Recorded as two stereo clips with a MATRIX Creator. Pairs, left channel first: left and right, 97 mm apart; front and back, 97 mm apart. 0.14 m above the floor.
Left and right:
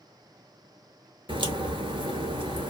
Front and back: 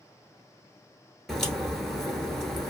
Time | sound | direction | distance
1.3 | a crack | 85° right | 0.8 m